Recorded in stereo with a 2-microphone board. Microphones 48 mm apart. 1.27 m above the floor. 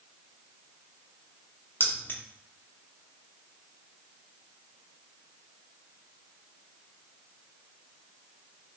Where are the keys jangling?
50° left (ahead or behind), 0.8 m.